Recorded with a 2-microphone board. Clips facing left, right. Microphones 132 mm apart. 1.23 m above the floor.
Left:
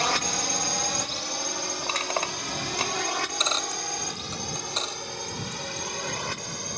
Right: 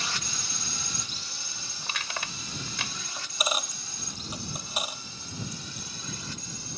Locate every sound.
0.0 s a drone: 65° left (ahead or behind)
1.8 s crushing: 40° left (ahead or behind)
3.2 s a dropped coin: 10° right (ahead or behind)